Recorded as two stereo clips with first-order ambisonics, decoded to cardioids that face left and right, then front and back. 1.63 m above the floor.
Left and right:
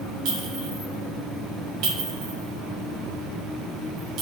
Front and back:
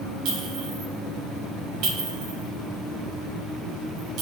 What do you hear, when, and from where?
0.2 s a clink: 135° right, 5.5 m